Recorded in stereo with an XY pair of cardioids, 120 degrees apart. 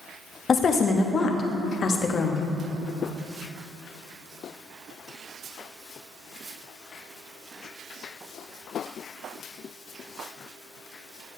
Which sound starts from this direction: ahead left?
A woman speaking, at 0.5 s.